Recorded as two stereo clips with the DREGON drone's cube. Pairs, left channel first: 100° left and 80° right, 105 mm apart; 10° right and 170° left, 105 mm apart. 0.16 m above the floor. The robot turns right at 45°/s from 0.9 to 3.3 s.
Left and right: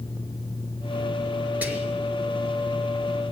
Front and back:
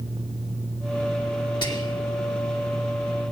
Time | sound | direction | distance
1.6 | whispering | 10° right | 1.9 m